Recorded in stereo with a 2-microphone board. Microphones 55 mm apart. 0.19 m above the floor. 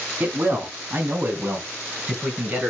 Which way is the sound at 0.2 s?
40° right (ahead or behind).